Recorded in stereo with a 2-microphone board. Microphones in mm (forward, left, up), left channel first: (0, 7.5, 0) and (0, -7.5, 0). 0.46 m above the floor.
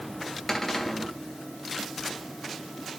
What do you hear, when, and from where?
0.5 s a cupboard door: 15° left (ahead or behind), 2 m